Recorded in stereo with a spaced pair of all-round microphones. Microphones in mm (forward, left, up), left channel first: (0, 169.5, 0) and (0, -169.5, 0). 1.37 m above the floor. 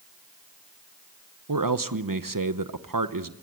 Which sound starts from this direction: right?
A man speaking, at 1.5 s.